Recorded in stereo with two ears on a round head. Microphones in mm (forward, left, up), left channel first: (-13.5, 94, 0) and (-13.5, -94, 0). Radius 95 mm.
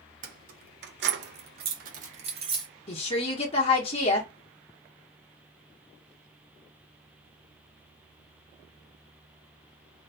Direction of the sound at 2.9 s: 25° left (ahead or behind).